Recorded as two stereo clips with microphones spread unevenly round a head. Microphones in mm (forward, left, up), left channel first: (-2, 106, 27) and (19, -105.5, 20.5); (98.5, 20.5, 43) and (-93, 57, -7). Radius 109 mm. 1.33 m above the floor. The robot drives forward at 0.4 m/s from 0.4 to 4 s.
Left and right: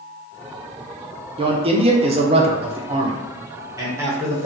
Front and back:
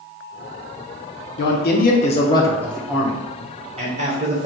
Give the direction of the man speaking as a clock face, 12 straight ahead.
1 o'clock.